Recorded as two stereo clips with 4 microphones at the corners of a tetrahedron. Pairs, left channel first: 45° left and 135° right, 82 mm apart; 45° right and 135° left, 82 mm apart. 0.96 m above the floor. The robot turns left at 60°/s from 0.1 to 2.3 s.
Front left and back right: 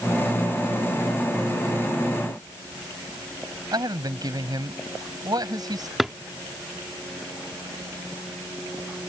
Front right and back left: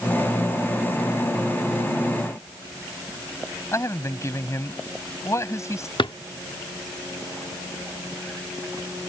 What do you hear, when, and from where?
3.7 s a man speaking: 100° right
6.0 s a drawer: 45° right